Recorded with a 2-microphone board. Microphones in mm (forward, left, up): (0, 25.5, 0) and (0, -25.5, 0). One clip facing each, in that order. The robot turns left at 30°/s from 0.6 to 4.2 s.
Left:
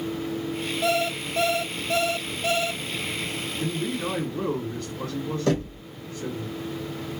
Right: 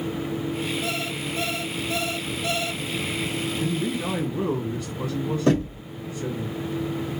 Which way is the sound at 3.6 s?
Centre (ahead or behind).